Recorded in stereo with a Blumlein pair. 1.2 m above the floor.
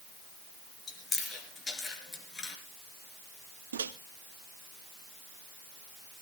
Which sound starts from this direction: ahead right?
A microwave, at 3.7 s.